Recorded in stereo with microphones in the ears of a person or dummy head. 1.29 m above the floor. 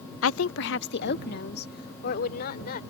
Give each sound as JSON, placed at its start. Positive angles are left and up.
{"t": 0.2, "sound": "a woman speaking", "side_deg": 85}